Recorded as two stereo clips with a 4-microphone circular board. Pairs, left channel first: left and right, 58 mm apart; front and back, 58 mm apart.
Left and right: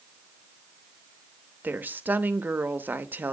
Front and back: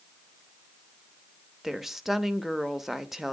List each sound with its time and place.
1.6 s a woman speaking: 95° right, 0.8 m